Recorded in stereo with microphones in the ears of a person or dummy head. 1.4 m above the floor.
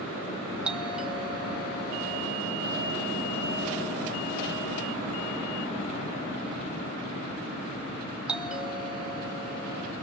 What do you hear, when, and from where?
0.7 s a doorbell: centre (ahead or behind), 1.6 m